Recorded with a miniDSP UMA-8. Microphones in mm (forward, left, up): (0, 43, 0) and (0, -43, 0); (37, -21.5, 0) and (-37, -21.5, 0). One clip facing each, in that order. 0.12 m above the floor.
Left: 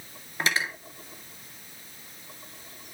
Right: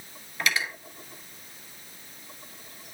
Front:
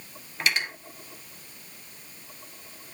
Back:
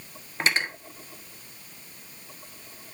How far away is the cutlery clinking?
About 1.2 m.